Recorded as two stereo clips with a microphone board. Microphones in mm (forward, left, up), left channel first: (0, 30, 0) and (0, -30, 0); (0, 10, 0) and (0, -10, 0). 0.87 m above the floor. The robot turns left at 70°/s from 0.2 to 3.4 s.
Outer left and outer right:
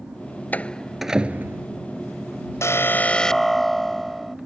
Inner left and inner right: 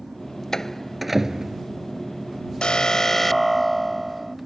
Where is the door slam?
30° left (ahead or behind); by 1.6 s 45° right (ahead or behind).